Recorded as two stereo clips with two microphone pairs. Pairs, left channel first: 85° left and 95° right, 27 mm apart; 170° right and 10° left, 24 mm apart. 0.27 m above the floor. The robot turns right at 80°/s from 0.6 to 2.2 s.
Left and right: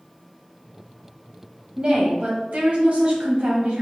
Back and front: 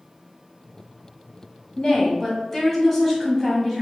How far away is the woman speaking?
About 1.2 m.